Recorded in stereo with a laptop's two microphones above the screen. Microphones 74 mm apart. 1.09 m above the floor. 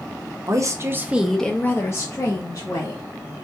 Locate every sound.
0.5 s a woman speaking: 50° right (ahead or behind), 0.8 m; by 3.0 s 65° left (ahead or behind), 1.4 m